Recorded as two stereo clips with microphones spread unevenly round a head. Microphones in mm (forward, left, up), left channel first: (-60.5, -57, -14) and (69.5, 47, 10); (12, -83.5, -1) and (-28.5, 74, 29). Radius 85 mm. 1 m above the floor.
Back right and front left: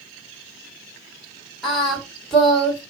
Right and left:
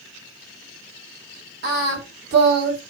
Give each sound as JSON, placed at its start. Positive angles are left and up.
{"t": 1.6, "sound": "singing", "azimuth_deg": 130, "distance_m": 3.5}